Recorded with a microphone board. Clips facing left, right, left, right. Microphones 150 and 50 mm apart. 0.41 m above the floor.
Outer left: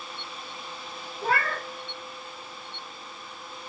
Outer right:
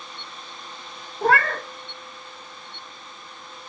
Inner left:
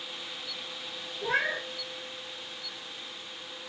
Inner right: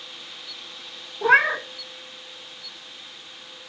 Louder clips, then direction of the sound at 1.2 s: Outer right 7 dB, inner right 11 dB; 70° right (ahead or behind).